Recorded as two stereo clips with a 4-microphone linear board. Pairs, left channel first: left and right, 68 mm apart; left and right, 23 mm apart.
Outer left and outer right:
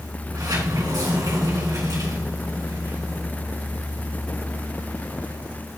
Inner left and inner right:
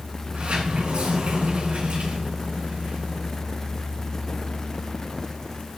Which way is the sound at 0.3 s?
70° right (ahead or behind).